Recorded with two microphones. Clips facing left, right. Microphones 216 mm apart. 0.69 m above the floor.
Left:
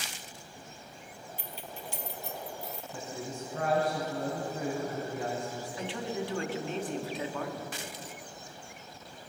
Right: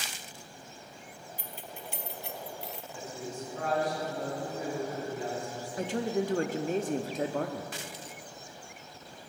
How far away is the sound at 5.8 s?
About 0.8 m.